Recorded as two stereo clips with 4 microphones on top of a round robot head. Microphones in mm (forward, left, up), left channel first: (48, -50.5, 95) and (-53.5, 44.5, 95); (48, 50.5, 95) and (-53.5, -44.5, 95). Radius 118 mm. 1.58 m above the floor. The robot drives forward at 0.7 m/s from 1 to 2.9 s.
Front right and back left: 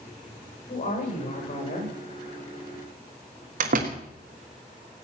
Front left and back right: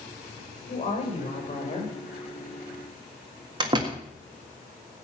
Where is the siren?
No siren in this recording.